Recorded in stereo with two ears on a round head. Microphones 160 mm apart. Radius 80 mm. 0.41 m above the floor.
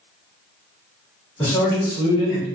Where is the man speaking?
10° left (ahead or behind), 1.5 m; by 2.5 s 30° left (ahead or behind), 1.5 m.